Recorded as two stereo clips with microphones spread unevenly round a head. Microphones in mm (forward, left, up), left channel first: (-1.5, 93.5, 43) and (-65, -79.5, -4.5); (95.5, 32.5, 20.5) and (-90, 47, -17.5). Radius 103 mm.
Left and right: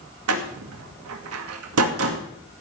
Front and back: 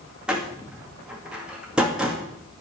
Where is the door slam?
95° right, 2 m.